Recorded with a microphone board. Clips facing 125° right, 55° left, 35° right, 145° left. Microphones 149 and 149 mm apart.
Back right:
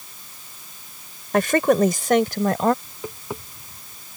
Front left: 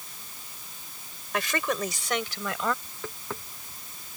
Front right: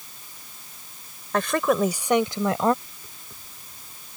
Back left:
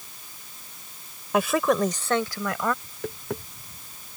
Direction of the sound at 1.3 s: 140° right.